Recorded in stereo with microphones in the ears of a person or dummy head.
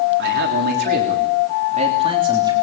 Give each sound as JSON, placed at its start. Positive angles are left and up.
{"t": 0.2, "sound": "a man speaking", "side_deg": -60, "distance_m": 3.5}